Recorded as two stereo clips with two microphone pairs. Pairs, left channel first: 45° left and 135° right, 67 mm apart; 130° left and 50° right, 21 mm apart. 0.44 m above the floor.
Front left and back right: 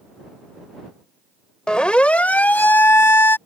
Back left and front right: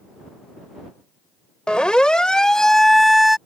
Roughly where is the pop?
I don't hear a pop.